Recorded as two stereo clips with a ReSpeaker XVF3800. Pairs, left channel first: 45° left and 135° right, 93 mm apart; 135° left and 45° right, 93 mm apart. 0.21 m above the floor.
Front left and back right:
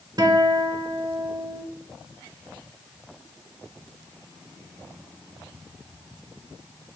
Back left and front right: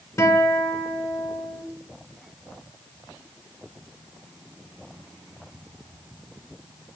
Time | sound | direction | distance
0.2 | a guitar | 175° right | 0.5 m